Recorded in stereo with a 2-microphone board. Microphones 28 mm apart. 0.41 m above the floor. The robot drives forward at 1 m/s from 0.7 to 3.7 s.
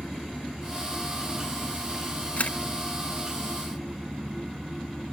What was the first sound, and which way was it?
A camera shutter, 50° left (ahead or behind).